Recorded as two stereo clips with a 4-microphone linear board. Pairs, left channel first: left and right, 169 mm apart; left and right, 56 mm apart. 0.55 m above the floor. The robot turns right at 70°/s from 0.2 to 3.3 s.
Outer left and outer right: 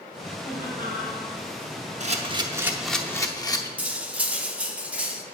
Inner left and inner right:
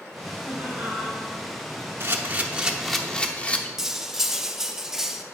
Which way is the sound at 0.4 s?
105° right.